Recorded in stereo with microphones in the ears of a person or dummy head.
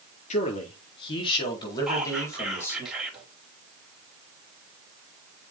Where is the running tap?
No running tap in this recording.